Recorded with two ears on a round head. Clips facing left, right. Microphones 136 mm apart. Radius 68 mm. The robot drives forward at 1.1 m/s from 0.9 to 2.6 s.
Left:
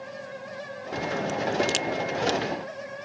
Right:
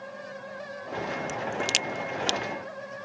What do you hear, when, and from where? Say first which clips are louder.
1.3 s a crack: left 5 dB; 15° right (ahead or behind); by 2.4 s 25° right (ahead or behind)